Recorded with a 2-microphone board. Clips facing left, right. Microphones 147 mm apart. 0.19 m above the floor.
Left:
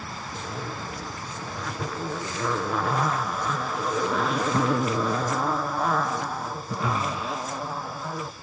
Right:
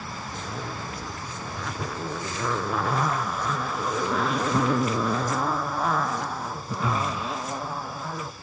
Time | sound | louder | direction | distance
0.3 | a zipper | left 1 dB | centre (ahead or behind) | 0.9 m